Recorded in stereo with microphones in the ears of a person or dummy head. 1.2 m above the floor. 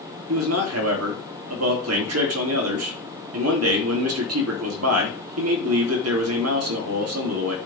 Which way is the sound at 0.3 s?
75° right (ahead or behind).